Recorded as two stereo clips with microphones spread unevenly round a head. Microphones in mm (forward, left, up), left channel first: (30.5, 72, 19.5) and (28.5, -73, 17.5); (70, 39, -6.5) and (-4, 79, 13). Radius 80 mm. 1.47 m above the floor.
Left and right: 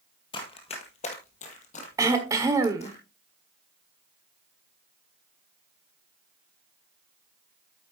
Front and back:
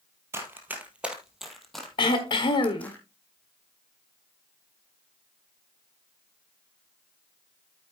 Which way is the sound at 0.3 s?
135° left.